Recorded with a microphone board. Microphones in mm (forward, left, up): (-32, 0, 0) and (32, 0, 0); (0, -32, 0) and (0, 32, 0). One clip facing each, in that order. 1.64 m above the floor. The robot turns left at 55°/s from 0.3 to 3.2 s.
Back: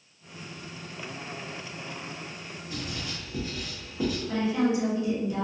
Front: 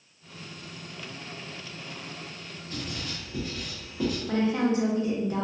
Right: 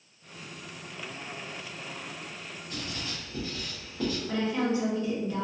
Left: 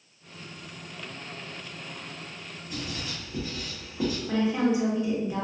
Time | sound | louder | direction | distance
2.7 | writing | even, left 2 dB | 150° left | 1.0 m
4.3 | a woman speaking | front 1 dB, left 4 dB | 20° left | 0.7 m